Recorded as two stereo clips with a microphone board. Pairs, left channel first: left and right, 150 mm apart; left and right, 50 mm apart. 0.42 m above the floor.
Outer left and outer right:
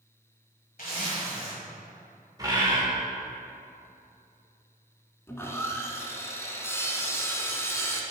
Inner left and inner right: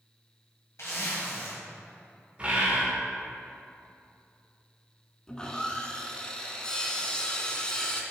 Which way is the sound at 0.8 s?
70° left (ahead or behind).